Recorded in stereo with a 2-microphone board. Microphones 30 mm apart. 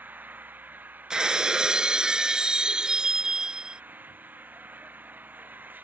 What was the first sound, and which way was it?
An engine running, 85° right.